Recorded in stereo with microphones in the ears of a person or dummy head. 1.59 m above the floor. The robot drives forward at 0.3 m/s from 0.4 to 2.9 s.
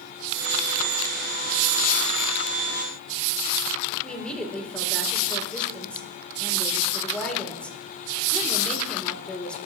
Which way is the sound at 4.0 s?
5° left (ahead or behind).